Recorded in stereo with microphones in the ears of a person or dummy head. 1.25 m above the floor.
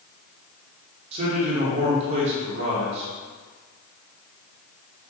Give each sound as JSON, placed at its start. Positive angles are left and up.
{"t": 1.1, "sound": "a man speaking", "side_deg": -40, "distance_m": 0.8}